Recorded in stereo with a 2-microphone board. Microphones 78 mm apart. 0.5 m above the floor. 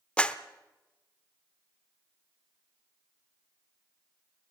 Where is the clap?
15° left (ahead or behind), 0.8 m.